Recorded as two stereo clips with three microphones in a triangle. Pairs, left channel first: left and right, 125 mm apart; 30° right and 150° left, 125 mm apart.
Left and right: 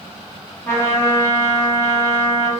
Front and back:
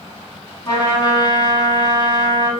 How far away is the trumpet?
About 2.0 m.